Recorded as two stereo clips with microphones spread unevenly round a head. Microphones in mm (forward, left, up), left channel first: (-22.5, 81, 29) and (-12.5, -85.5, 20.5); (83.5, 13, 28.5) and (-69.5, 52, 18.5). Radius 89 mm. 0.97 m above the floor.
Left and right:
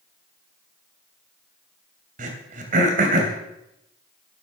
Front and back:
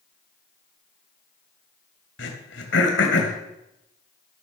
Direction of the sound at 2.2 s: 40° right.